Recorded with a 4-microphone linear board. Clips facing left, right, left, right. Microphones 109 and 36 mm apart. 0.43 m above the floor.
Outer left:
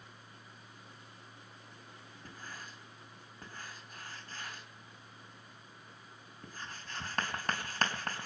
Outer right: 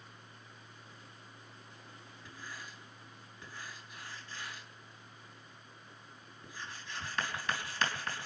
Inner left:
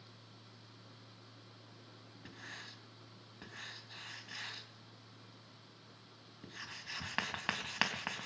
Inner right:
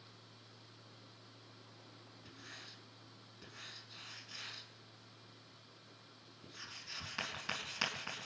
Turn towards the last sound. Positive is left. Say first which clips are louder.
# even, inner left 4 dB
turn(degrees=45)  # may be behind; listen again after turning